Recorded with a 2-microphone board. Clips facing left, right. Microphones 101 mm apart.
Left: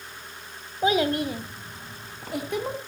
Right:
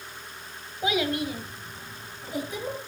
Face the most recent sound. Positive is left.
turn(degrees=65)  # may be behind; listen again after turning